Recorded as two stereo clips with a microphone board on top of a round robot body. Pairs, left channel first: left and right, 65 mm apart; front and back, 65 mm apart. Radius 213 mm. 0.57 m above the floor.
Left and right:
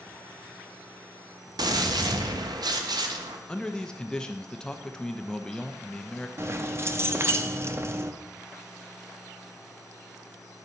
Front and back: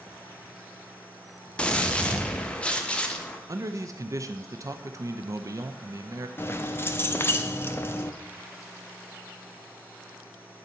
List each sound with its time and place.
1.6 s a gunshot: 75° right, 0.8 m
3.5 s a man speaking: 165° left, 0.8 m
6.4 s keys jangling: 50° right, 0.9 m